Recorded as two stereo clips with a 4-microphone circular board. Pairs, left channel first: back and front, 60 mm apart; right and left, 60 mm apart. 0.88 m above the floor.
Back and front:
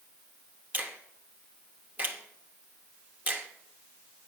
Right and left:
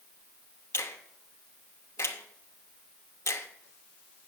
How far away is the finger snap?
About 0.9 m.